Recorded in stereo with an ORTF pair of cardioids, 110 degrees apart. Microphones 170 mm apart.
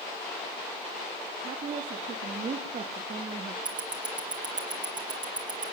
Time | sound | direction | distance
1.4 | a woman speaking | 50° right | 4 m
3.6 | ticking | 25° right | 3 m